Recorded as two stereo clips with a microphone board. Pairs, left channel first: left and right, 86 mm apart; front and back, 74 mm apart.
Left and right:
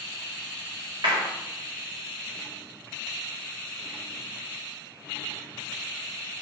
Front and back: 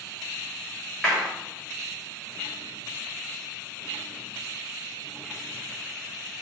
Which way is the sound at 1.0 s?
75° right.